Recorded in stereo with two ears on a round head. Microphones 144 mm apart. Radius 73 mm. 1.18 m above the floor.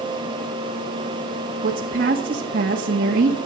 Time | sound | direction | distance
1.6 | a woman speaking | 55° right (ahead or behind) | 1.9 m